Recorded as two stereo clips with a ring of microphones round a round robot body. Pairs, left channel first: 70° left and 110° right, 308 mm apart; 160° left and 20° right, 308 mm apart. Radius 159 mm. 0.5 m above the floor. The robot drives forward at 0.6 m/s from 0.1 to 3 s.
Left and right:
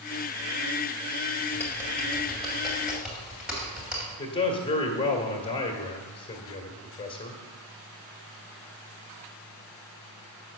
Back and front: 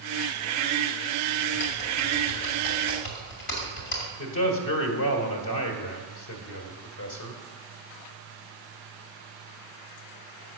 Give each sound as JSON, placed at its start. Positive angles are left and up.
{"t": 1.5, "sound": "typing on a keyboard", "azimuth_deg": 150, "distance_m": 1.8}
{"t": 4.2, "sound": "a man speaking", "azimuth_deg": 140, "distance_m": 1.7}